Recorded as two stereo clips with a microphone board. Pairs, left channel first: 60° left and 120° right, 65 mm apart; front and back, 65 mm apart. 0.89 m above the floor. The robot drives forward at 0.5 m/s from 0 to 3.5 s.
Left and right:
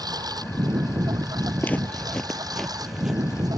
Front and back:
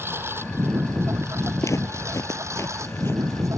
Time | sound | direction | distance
0.0 | a lawn mower | 125° right | ?
1.6 | footsteps | 5° left | ?